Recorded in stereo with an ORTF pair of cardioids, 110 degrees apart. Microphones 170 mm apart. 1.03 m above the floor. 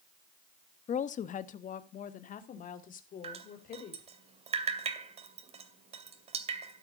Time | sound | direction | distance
0.9 | a woman speaking | 45° left | 1.0 m
3.2 | dripping | 40° right | 2.5 m